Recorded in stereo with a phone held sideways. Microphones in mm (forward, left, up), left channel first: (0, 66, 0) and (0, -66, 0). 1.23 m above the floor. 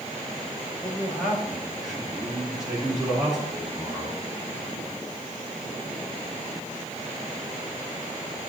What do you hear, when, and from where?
0.8 s a man speaking: centre (ahead or behind), 2 m; by 4.2 s 5° right (ahead or behind), 4 m